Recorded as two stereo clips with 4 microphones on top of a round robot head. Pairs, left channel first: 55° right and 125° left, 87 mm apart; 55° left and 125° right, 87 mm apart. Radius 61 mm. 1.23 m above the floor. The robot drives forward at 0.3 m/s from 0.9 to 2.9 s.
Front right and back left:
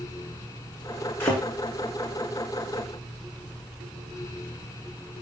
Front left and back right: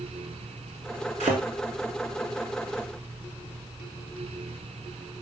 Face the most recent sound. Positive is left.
turn(degrees=-135)